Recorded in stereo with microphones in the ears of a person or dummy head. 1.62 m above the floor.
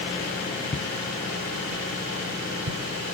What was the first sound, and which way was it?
Footsteps, 10° left (ahead or behind).